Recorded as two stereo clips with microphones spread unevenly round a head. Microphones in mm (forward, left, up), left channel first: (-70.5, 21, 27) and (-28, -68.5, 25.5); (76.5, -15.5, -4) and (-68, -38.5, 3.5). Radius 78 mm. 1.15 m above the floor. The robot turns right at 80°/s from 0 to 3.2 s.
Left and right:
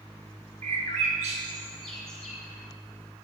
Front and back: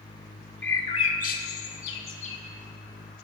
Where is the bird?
70° right, 1.0 m; by 2.4 s 70° left, 1.0 m.